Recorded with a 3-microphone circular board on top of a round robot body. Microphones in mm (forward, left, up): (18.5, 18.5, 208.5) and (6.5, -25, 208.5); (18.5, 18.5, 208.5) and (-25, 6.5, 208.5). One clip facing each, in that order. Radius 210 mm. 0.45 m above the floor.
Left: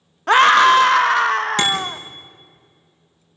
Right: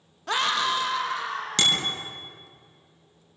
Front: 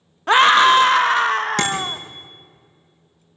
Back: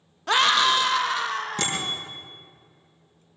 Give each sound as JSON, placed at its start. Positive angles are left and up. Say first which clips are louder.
{"t": 0.3, "sound": "a scream", "louder": "left 14 dB, front 8 dB", "azimuth_deg": 65, "distance_m": 0.8}
{"t": 1.6, "sound": "a bicycle bell", "louder": "left 4 dB, front 7 dB", "azimuth_deg": 0, "distance_m": 7.0}